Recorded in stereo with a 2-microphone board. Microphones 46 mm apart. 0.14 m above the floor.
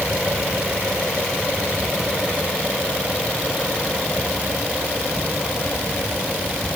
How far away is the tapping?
No tapping in this recording.